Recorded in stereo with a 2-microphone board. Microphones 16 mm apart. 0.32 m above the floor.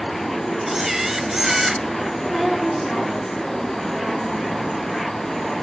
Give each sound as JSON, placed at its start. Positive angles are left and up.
{"t": 0.7, "sound": "a camera shutter", "side_deg": -20, "distance_m": 0.9}
{"t": 2.3, "sound": "a woman speaking", "side_deg": 10, "distance_m": 4.0}